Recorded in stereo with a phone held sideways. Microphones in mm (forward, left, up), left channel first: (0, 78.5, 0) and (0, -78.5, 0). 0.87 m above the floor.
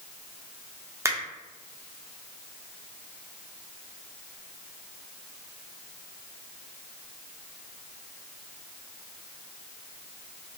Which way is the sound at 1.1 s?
20° right (ahead or behind).